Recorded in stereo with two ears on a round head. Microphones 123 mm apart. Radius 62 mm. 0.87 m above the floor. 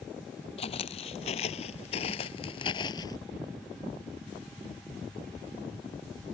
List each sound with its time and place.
0.6 s footsteps: 45° left (ahead or behind); by 3.2 s 30° left (ahead or behind)